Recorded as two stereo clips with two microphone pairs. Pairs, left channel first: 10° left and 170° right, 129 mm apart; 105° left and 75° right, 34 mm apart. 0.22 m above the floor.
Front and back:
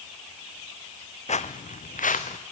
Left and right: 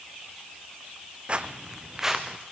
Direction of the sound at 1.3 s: 20° right.